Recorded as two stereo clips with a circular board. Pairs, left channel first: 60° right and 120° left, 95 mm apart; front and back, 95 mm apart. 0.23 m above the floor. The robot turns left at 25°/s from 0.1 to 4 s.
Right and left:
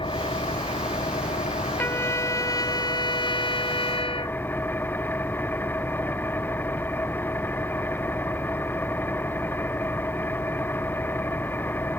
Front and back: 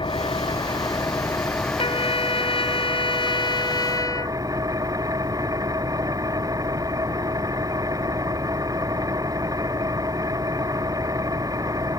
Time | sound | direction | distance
0.0 | an engine running | 30° right | ?
1.8 | a trumpet | 10° left | ?